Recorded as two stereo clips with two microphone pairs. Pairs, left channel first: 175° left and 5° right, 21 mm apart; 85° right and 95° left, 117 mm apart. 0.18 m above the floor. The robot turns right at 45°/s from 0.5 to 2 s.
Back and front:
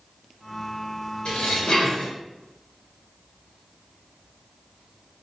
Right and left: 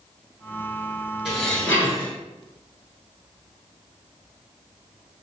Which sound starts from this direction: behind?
Dishes clattering, at 1.2 s.